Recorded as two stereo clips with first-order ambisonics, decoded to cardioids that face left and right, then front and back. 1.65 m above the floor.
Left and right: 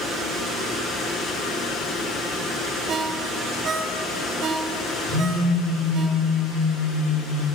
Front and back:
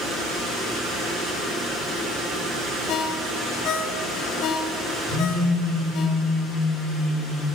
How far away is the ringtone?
About 0.9 m.